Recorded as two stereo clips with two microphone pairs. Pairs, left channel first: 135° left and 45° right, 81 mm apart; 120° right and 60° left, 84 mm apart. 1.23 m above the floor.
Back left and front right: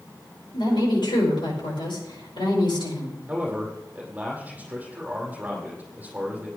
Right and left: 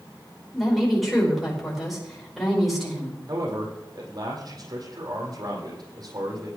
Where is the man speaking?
25° left, 5 m.